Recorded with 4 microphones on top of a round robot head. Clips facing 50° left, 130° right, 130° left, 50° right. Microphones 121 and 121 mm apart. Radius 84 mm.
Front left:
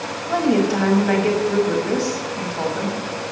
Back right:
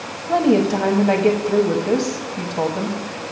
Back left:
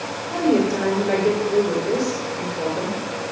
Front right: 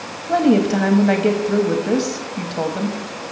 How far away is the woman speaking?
About 1.0 m.